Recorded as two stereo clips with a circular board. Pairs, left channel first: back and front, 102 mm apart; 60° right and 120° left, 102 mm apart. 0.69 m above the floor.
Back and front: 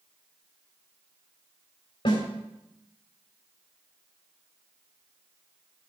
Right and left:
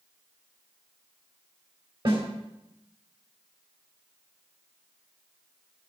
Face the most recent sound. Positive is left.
turn(degrees=150)